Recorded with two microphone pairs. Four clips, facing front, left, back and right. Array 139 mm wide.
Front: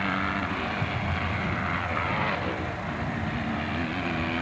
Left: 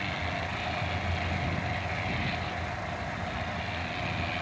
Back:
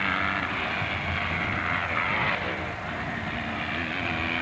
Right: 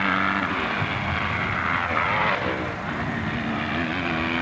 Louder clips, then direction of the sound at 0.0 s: Right 11 dB, even; 90° right.